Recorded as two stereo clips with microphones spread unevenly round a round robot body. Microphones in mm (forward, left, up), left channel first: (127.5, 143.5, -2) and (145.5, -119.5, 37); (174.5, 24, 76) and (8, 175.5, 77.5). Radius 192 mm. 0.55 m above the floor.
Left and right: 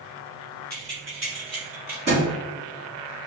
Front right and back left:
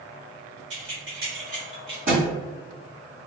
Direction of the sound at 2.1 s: 155° right.